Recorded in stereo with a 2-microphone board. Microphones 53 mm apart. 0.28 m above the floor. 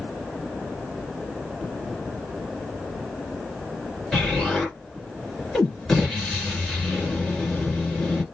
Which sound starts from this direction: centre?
An explosion, at 4.1 s.